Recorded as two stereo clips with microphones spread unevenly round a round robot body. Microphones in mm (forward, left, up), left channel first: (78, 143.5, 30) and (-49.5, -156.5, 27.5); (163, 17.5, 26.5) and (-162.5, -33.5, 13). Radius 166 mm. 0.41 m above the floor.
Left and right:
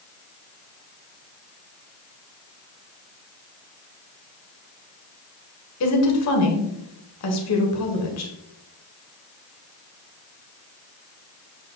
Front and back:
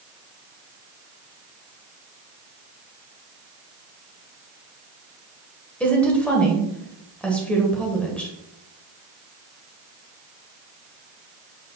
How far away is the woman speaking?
About 1.7 m.